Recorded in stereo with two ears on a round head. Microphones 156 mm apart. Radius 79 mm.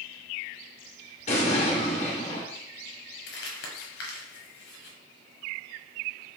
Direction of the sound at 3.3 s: 65° left (ahead or behind).